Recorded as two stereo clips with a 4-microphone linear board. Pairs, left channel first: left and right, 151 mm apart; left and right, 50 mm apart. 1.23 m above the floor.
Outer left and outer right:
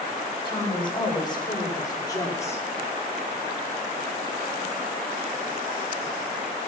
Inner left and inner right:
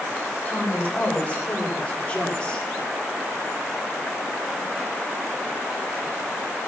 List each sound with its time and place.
0.5 s a woman speaking: 30° left (ahead or behind), 4.5 m; by 2.7 s 15° left (ahead or behind), 2 m